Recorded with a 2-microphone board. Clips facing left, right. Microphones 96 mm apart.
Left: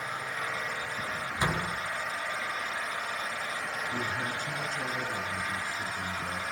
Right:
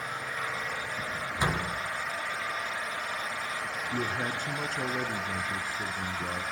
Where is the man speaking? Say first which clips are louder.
Right 4 dB; 50° right (ahead or behind), 2.5 m.